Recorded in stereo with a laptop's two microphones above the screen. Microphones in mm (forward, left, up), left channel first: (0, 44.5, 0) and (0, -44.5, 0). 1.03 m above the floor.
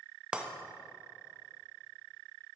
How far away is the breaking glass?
About 0.6 m.